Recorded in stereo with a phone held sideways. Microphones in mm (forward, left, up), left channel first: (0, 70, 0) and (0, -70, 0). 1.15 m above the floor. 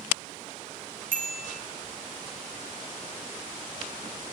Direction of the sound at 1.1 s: 75° right (ahead or behind).